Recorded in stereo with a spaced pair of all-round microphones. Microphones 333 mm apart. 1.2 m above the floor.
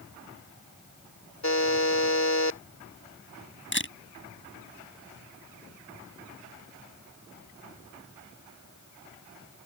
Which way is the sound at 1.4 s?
55° left (ahead or behind).